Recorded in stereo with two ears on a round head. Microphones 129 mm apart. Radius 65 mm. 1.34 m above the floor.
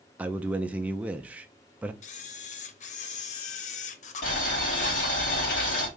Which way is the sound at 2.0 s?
55° left (ahead or behind).